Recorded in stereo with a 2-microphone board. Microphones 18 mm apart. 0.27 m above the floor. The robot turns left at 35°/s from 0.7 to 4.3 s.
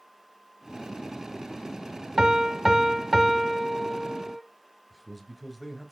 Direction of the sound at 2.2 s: 120° right.